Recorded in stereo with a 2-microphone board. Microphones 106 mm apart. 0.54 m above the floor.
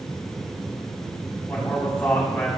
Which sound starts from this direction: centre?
A man speaking, at 1.5 s.